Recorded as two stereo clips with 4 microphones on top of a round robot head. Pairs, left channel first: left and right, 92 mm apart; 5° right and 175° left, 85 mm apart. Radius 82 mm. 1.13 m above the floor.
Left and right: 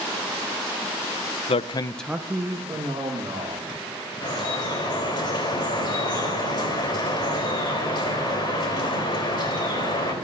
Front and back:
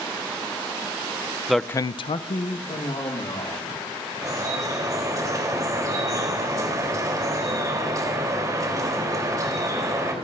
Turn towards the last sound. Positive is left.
turn(degrees=125)